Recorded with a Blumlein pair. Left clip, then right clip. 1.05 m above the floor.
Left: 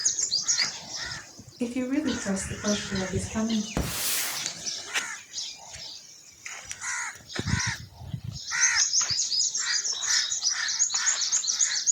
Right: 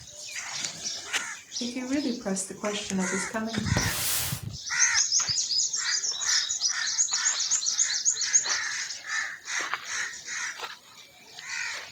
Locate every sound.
1.6 s a woman speaking: 15° left, 0.5 m; by 3.7 s 35° right, 1.3 m
3.8 s a hiss: 5° right, 0.6 m